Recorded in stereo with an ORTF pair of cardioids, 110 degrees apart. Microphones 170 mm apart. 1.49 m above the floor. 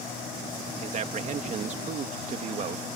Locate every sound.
0.8 s a man speaking: 45° right